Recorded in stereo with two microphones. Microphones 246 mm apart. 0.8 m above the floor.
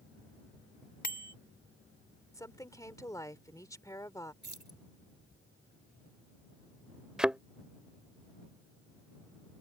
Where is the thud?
5° right (ahead or behind).